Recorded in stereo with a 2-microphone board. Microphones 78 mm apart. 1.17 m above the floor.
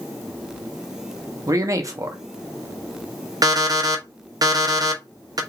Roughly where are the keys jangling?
No keys jangling in this recording.